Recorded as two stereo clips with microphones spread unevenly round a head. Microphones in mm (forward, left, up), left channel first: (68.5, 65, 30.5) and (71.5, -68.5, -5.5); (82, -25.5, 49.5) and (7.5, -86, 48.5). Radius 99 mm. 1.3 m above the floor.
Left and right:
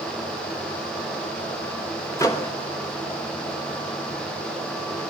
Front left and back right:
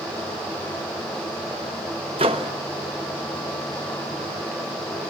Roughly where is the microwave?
Behind.